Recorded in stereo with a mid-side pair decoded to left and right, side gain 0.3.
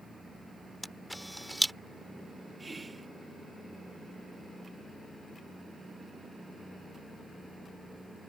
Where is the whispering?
30° right.